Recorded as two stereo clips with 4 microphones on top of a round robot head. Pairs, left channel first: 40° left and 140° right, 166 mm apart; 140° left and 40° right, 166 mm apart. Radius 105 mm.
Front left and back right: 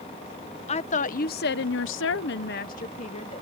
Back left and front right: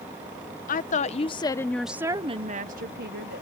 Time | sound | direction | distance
0.7 | a woman speaking | 95° left | ?